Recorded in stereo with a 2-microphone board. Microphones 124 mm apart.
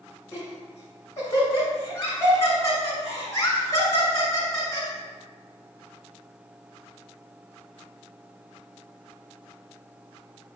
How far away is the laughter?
About 1.7 m.